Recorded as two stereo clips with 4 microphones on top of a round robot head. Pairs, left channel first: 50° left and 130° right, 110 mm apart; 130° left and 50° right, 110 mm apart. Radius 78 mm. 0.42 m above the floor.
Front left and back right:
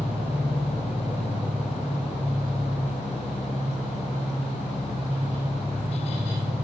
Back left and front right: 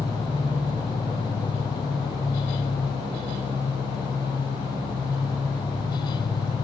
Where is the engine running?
155° left, 0.8 m.